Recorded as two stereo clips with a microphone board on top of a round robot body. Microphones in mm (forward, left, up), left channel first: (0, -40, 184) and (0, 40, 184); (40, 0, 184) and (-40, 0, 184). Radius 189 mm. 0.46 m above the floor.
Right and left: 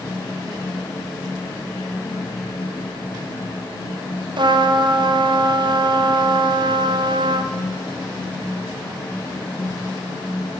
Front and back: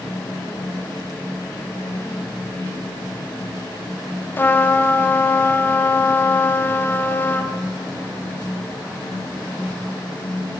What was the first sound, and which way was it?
A trumpet, 65° left.